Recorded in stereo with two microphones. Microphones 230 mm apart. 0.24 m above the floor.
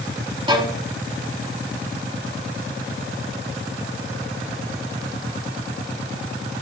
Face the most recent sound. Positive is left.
turn(degrees=-20)  # may be behind; listen again after turning